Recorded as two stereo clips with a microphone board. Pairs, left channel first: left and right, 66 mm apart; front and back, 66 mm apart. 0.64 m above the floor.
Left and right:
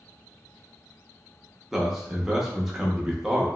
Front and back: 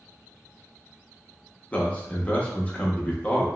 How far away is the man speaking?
About 0.6 m.